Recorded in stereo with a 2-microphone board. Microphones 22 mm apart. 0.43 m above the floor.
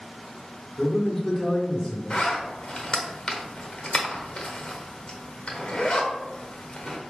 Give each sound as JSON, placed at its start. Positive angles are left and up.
{"t": 0.8, "sound": "a man speaking", "side_deg": 25, "distance_m": 0.9}
{"t": 2.1, "sound": "a zipper", "side_deg": 50, "distance_m": 0.7}